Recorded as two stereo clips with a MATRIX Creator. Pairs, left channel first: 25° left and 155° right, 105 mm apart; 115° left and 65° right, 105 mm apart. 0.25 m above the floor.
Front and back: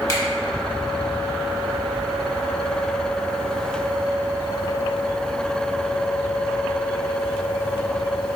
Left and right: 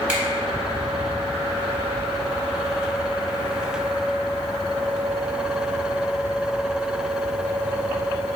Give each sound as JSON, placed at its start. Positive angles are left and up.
{"t": 0.1, "sound": "a finger snap", "azimuth_deg": 5, "distance_m": 1.1}